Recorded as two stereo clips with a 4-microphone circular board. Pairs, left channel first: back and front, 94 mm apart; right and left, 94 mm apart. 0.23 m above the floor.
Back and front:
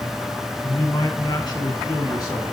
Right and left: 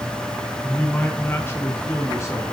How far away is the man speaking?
About 2 m.